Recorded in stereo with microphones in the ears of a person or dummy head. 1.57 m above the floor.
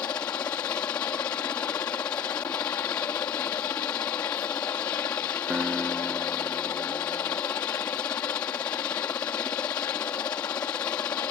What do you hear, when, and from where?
0.0 s a helicopter: 25° left (ahead or behind)
5.5 s a guitar: 5° left (ahead or behind)